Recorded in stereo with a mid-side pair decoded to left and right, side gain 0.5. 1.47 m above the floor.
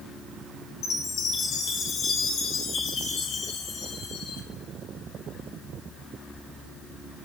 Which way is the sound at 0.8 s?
65° left.